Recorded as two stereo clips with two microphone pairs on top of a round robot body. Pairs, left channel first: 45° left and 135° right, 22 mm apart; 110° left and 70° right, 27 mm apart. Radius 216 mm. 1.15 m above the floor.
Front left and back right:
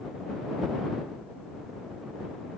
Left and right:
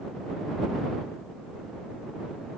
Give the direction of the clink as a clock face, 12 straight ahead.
I don't hear a clink.